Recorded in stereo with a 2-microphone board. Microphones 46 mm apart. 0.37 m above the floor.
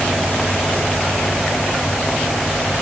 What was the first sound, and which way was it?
Only background noise.